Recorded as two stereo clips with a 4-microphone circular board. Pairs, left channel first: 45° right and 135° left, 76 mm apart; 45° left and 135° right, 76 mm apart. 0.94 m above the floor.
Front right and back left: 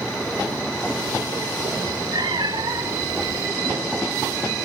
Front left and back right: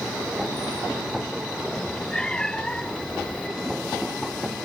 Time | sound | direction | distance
1.8 | a cat meowing | 125° left | ?